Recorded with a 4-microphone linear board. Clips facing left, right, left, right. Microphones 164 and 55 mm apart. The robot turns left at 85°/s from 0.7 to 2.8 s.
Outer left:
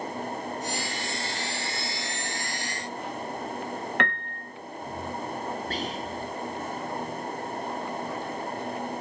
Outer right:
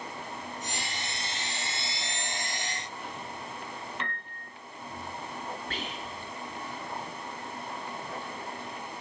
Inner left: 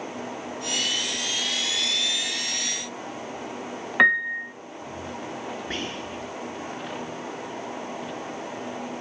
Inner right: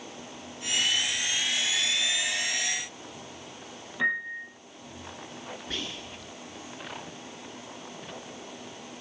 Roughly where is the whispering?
Left.